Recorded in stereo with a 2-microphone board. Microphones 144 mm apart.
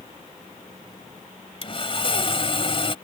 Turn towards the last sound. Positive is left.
turn(degrees=40)  # may be behind; listen again after turning